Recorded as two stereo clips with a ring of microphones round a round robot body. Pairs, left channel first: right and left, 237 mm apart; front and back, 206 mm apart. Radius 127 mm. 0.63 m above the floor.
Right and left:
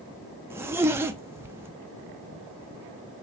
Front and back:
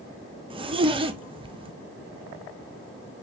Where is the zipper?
155° left, 0.7 m.